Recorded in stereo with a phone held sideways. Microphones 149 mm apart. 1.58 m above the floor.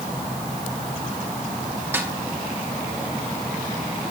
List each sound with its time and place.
1.9 s a snare drum: 15° right (ahead or behind), 2 m